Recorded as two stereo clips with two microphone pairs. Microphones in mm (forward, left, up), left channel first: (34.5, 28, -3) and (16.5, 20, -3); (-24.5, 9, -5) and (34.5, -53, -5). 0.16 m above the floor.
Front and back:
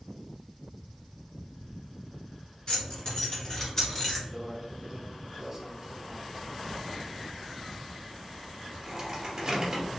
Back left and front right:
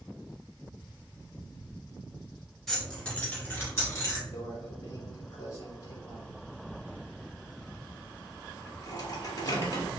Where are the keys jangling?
45° left, 1.4 m; by 4.2 s 95° left, 1.4 m.